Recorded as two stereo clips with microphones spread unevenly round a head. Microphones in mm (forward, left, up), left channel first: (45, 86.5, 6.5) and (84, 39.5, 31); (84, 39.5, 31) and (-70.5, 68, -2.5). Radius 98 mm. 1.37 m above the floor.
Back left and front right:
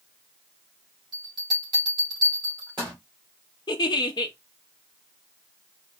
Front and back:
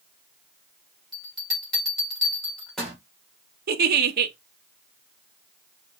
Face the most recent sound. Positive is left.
turn(degrees=160)